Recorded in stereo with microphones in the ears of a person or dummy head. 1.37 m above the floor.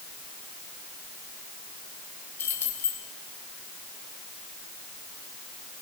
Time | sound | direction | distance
2.4 | keys jangling | 20° left (ahead or behind) | 1.8 m